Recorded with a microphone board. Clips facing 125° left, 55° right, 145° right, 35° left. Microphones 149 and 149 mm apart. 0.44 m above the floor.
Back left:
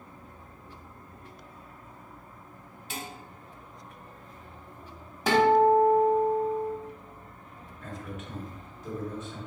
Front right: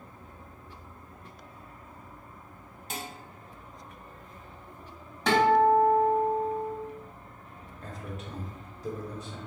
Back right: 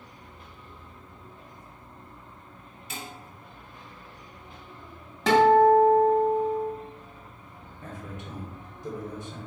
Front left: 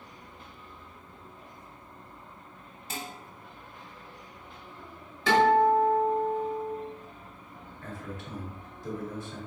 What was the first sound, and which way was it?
Dishes clattering, 15° right.